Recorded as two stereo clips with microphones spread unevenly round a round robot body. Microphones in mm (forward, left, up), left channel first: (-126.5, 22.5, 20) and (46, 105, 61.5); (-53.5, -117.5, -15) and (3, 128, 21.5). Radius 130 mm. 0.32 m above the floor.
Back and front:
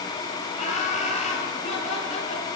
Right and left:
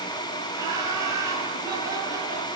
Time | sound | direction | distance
0.6 | laughter | 155° left | 8.5 m